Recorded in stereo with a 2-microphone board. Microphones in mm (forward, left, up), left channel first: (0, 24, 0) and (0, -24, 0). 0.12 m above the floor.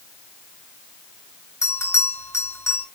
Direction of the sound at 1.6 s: 80° left.